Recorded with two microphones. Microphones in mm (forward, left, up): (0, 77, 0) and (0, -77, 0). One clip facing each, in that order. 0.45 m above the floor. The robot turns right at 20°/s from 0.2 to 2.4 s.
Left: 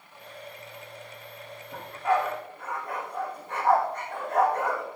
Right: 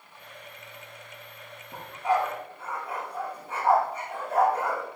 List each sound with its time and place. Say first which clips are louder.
1.7 s a dog barking: even; 20° right (ahead or behind), 9 m; by 4.8 s 10° right (ahead or behind), 9 m